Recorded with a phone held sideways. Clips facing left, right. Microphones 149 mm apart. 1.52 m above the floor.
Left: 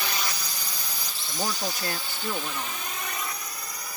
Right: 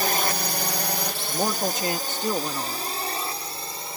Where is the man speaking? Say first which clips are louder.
Right 4 dB; 25° right (ahead or behind).